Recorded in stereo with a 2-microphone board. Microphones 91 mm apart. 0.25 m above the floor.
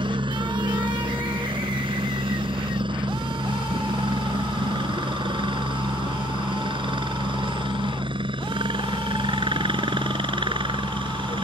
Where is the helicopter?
65° right (ahead or behind).